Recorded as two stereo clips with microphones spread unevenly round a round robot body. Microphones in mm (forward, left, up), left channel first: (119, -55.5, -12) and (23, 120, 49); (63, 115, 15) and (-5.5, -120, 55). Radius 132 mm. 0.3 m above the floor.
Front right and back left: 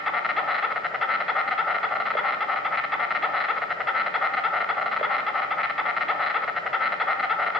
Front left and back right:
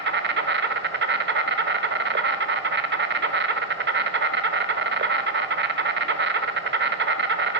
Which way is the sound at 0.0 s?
125° right.